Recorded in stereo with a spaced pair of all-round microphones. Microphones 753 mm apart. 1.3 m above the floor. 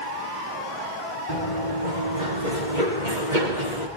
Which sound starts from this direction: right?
Running footsteps, at 1.3 s.